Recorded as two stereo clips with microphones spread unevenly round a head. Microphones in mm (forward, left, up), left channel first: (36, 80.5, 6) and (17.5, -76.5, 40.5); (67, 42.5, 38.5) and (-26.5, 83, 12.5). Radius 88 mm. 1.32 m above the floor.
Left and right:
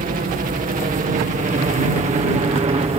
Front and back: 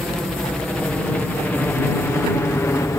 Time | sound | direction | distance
0.0 | a helicopter | 125° right | ?